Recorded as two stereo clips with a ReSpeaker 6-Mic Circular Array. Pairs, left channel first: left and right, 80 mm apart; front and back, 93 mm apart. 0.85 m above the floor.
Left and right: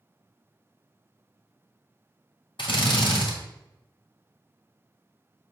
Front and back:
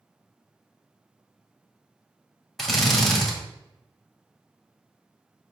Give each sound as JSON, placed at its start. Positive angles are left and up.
{"t": 2.6, "sound": "a drill", "azimuth_deg": 85, "distance_m": 1.4}